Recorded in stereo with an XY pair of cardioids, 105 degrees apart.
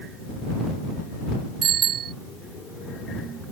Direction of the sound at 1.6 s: 65° right.